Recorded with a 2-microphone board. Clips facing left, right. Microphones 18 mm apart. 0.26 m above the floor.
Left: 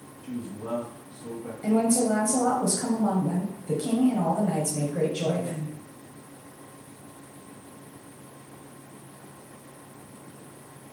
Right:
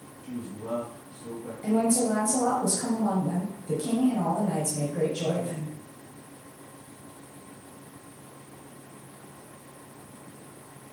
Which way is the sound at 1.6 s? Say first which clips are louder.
Left 1 dB; 20° left (ahead or behind).